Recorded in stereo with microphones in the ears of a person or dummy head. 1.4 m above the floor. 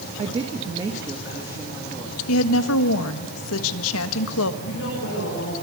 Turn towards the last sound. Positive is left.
turn(degrees=65)  # may be behind; listen again after turning